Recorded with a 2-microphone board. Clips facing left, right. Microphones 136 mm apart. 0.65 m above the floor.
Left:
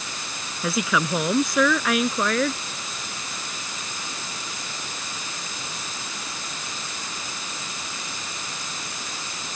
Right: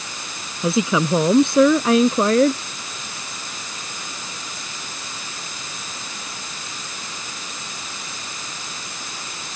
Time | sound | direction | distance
0.6 | a woman speaking | 25° right (ahead or behind) | ?